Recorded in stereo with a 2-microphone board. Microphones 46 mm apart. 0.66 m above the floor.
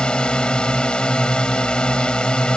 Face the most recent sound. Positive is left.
turn(degrees=20)  # may be behind; listen again after turning